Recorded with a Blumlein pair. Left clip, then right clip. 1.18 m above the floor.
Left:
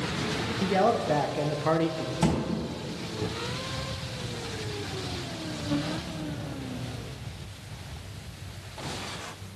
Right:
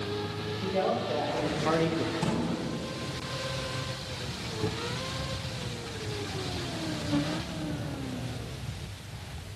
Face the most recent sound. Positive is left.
turn(degrees=25)